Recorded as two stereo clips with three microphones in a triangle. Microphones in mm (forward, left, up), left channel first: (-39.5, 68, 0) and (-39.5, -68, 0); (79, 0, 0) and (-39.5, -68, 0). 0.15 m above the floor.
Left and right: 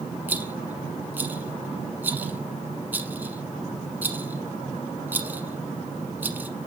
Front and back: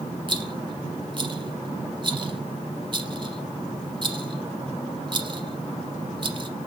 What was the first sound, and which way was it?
A rattle, 160° right.